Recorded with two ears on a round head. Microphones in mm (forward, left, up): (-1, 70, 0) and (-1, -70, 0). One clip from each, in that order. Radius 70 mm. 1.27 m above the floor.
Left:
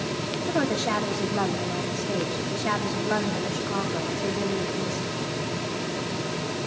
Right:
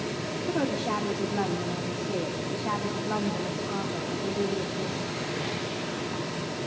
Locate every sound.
0.5 s a woman speaking: 80° left, 1.8 m